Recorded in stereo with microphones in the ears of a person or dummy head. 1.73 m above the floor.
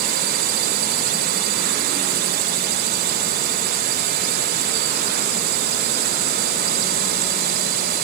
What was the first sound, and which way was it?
A drone, 50° right (ahead or behind).